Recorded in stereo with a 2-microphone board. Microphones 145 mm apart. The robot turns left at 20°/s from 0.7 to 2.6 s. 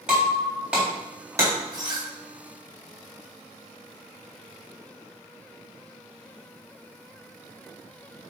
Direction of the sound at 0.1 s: 5° right (ahead or behind).